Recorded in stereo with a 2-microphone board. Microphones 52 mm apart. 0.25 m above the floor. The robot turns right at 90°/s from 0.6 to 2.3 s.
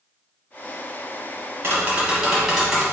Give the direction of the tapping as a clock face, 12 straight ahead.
2 o'clock.